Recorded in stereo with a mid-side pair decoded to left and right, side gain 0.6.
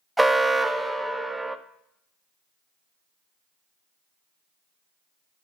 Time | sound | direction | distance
0.2 | an alarm | 10° right | 0.6 m